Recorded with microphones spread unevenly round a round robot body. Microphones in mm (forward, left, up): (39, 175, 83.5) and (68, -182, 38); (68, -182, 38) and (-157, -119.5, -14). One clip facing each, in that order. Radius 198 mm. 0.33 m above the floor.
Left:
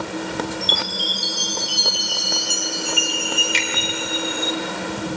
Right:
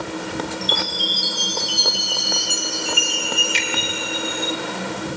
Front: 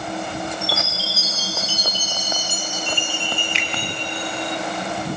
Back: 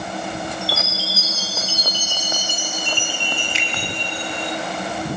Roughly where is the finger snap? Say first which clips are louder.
Left 1 dB, even; left.